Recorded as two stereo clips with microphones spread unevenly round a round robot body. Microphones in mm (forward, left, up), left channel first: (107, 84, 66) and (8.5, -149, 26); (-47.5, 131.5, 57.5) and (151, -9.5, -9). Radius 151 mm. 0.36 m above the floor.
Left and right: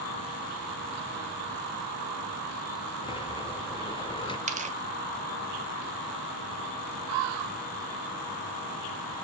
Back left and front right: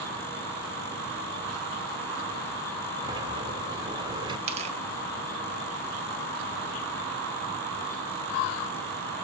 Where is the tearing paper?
75° right, 1.7 m.